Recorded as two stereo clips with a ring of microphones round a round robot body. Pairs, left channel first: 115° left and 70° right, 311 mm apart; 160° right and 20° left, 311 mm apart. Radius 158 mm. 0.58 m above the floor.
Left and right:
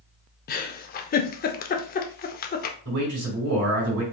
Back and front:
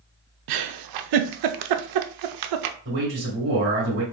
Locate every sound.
0.5 s a giggle: 50° left, 0.5 m
2.9 s a man speaking: 35° right, 3 m